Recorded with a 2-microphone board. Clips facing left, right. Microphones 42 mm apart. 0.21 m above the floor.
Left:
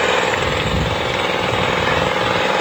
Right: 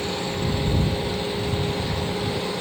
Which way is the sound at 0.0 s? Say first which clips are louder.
Left 11 dB; 60° left (ahead or behind).